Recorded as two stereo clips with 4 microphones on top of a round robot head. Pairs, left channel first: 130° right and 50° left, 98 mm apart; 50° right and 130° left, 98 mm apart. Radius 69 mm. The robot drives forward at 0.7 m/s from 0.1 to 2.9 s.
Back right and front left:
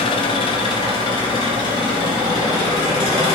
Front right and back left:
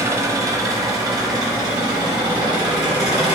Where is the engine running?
165° right, 0.8 m; by 3.4 s 175° right, 3 m.